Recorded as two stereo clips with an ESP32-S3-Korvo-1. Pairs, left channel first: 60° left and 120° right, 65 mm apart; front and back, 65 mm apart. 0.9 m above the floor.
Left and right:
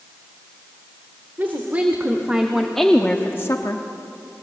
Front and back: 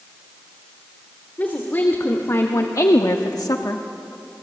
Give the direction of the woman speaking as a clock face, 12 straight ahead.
2 o'clock.